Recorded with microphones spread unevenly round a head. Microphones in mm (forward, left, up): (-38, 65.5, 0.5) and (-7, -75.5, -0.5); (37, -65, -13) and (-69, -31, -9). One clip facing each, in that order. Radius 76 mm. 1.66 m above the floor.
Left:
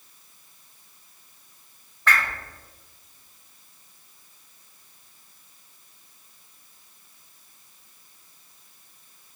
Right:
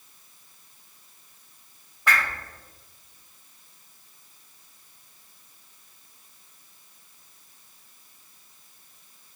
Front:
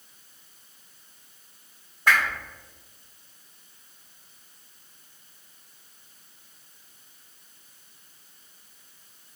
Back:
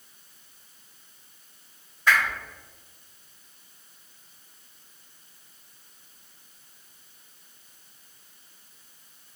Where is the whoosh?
Straight ahead, 1.6 m.